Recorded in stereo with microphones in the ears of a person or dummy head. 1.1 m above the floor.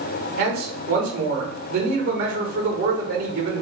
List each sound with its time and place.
0.4 s a man speaking: 50° right (ahead or behind), 1.2 m